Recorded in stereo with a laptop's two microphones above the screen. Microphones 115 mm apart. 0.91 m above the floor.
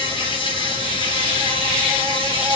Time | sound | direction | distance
0.0 | an insect | 45° left (ahead or behind) | 6 m